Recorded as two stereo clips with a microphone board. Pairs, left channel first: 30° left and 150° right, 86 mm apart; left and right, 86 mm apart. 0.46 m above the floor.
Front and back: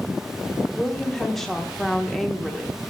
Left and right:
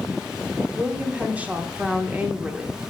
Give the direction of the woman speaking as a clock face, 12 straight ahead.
2 o'clock.